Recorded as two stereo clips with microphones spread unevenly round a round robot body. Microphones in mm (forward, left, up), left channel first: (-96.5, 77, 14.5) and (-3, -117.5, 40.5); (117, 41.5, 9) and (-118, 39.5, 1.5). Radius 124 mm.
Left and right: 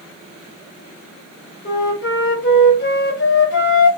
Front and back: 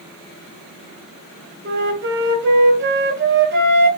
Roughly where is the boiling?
No boiling in this recording.